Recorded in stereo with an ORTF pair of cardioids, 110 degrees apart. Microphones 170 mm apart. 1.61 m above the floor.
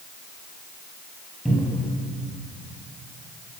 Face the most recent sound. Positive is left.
turn(degrees=0)